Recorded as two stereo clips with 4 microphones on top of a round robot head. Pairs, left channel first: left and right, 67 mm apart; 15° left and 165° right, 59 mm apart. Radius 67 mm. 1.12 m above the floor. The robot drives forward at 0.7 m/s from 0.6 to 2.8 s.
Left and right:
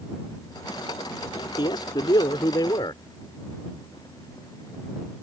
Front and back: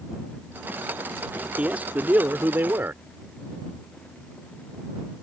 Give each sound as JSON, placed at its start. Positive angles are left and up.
{"t": 1.6, "sound": "a man speaking", "azimuth_deg": 120}